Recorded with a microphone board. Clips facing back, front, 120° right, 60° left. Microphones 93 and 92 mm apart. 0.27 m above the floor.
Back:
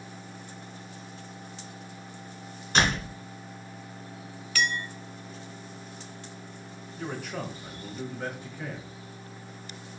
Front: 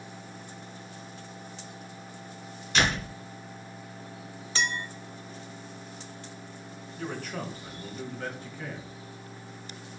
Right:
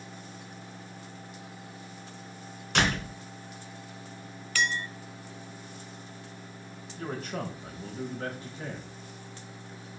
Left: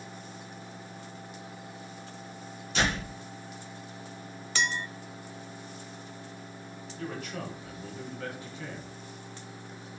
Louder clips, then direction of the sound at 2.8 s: Back 1 dB, right 2 dB; 135° right.